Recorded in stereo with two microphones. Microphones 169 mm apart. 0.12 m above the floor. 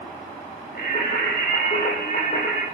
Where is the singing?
55° left (ahead or behind), 8.5 m.